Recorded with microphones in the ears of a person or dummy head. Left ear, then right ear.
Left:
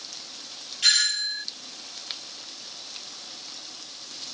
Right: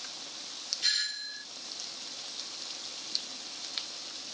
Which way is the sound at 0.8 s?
40° left (ahead or behind).